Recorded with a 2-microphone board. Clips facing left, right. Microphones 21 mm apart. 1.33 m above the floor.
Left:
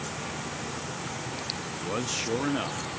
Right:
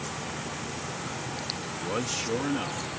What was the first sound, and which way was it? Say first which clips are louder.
A man speaking: right 1 dB; 20° right (ahead or behind).